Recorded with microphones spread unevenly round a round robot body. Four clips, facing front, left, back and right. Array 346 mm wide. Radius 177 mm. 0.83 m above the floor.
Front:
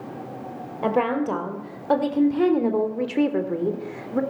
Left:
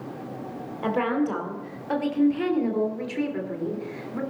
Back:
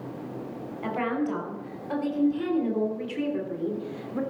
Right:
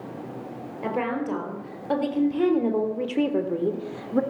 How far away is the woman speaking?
About 4 m.